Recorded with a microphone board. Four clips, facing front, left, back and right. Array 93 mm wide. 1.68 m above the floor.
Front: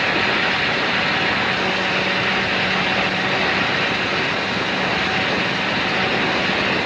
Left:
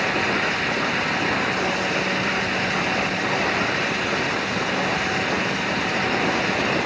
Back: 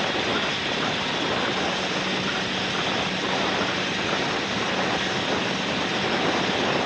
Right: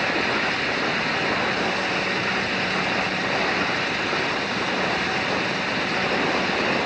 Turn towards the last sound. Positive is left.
No sound to turn to.